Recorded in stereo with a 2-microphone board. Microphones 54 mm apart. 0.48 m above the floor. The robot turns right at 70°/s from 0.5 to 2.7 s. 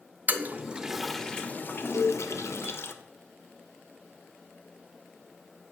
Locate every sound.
0.3 s a toilet flushing: 35° right (ahead or behind), 0.6 m; by 2.9 s 55° left (ahead or behind), 0.6 m
1.9 s a cowbell: 80° left, 1.1 m; by 2.2 s 70° left (ahead or behind), 1.1 m